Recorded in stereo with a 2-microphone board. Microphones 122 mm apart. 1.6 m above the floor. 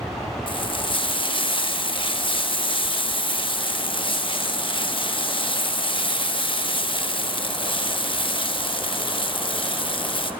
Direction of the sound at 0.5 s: 45° left (ahead or behind).